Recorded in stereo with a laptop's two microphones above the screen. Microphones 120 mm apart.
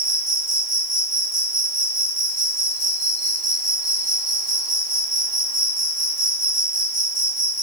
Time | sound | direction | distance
0.0 | an insect | 30° left (ahead or behind) | 1.6 m